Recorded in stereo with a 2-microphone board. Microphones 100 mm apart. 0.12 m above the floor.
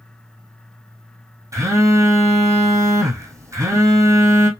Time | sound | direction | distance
1.5 | a phone buzzing | 30° right (ahead or behind) | 1.5 m